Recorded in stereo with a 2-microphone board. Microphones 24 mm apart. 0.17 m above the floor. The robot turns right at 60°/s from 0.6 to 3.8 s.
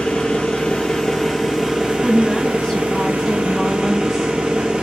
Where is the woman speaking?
25° left (ahead or behind), 1.1 m; by 4.8 s 5° left (ahead or behind), 1.1 m.